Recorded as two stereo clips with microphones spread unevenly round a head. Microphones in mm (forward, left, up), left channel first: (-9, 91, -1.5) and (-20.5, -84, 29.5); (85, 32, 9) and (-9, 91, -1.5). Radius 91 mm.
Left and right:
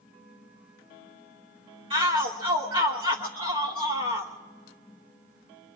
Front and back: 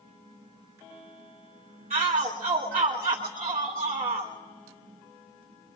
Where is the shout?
150° right, 1.3 m.